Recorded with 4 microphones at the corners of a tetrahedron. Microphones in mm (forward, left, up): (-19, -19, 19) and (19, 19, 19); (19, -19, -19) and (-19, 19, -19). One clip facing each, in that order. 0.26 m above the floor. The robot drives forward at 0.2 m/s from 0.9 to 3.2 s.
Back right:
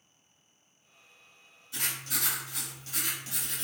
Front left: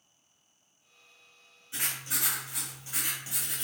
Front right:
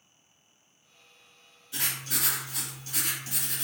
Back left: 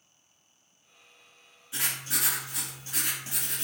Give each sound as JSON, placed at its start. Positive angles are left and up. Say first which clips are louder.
{"t": 1.7, "sound": "writing", "louder": "even, back left 1 dB", "azimuth_deg": 90, "distance_m": 1.4}